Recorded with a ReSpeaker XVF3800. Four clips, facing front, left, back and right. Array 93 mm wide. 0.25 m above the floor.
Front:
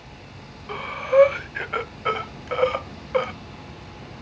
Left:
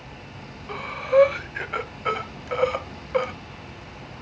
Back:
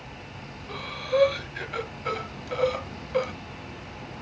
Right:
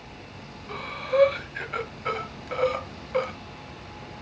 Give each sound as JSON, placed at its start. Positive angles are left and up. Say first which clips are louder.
{"t": 0.7, "sound": "breathing", "louder": "left 6 dB, front 6 dB", "azimuth_deg": 25, "distance_m": 0.9}